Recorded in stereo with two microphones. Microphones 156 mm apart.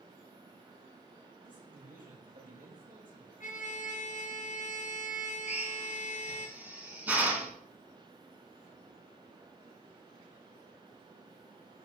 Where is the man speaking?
60° right (ahead or behind), 7 m.